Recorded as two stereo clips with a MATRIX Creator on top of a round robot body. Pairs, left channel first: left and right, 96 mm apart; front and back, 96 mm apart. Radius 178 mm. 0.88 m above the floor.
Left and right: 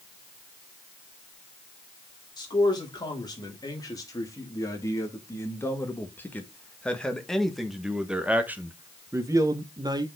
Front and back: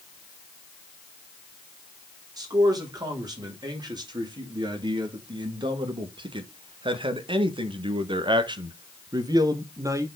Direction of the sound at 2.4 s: 135° left.